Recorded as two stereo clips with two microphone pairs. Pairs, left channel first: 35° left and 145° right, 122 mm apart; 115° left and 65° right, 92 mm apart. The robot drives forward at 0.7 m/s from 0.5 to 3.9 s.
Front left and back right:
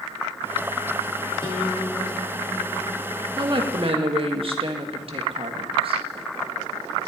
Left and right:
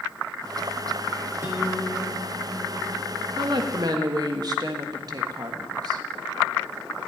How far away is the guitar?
About 4 m.